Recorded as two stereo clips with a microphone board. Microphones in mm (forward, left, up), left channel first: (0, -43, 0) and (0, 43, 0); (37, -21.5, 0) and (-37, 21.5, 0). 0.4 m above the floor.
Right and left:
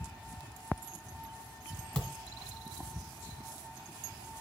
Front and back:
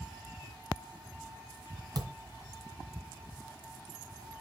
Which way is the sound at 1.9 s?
170° right.